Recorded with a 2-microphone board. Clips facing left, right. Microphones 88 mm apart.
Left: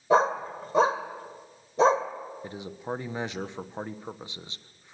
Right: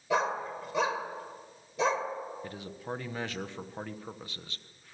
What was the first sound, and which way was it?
A dog barking, 35° left (ahead or behind).